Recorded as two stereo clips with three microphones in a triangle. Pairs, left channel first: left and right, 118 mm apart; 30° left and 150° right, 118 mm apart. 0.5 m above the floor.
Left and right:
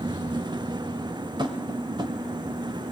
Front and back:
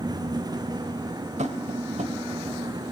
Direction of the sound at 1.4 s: 140° right.